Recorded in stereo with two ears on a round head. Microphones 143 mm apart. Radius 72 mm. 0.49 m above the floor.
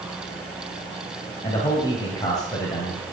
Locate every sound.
1.4 s a man speaking: 25° left (ahead or behind), 2.5 m